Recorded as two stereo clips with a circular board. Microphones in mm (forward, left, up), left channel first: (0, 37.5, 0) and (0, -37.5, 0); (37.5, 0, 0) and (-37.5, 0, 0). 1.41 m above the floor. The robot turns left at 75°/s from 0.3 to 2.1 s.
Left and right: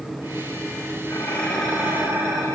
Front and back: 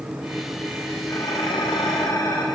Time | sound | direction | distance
1.1 | dishes clattering | 40° left | 5.5 m